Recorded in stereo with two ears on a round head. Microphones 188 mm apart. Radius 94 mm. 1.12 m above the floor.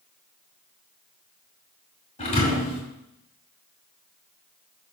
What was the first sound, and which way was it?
A thud, 30° left (ahead or behind).